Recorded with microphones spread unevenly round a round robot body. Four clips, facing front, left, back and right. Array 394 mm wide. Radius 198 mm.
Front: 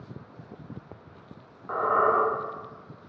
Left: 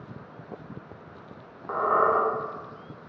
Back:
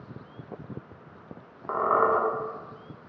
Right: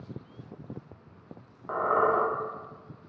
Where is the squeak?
170° left, 0.7 m.